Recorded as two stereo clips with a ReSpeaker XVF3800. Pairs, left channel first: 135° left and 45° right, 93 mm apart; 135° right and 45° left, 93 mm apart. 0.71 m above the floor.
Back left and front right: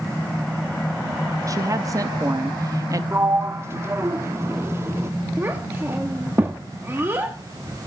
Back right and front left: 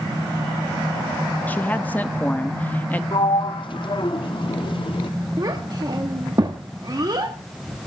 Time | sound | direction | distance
1.5 | a woman speaking | 70° right | 0.7 m
3.1 | a sliding door | 105° right | 0.6 m
5.4 | a child speaking | 15° left | 0.8 m